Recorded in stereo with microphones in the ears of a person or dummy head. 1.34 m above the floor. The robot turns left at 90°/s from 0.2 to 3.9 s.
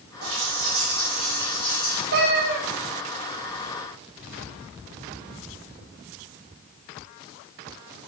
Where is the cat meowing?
80° right, 1.1 m; by 2.6 s 130° right, 1.1 m.